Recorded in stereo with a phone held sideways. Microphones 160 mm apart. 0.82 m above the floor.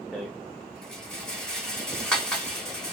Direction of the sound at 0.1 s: 5° left (ahead or behind).